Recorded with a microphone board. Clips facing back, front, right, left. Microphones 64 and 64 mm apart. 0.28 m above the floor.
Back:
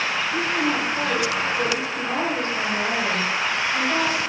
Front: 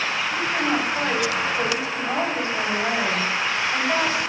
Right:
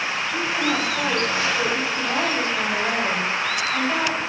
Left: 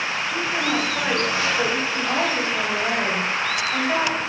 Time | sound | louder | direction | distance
0.3 | a woman speaking | even, even | 40° left | 1.3 m